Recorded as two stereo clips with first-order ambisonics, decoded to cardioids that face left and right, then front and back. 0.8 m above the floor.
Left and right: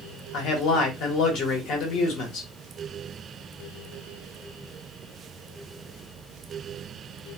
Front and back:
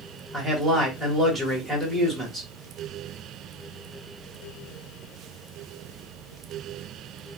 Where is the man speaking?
90° left, 1.1 m.